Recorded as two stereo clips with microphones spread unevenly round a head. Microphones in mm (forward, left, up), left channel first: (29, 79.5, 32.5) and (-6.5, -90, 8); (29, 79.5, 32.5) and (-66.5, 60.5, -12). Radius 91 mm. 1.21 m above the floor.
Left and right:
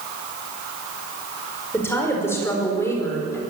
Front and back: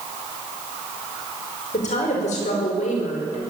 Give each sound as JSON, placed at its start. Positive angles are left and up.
{"t": 1.7, "sound": "a woman speaking", "azimuth_deg": 0, "distance_m": 5.5}